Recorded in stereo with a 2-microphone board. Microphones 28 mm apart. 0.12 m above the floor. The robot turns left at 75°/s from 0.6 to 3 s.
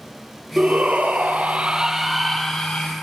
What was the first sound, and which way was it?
A shout, 55° right.